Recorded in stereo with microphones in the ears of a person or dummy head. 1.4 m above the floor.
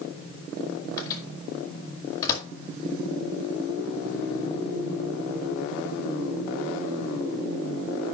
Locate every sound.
1.0 s a microwave: 20° left (ahead or behind), 1.9 m